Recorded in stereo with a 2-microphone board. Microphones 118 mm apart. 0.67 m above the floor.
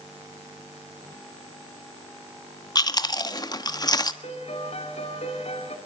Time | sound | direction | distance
2.8 | chewing | 35° left (ahead or behind) | 1.2 m
4.2 | a piano | 60° left (ahead or behind) | 2 m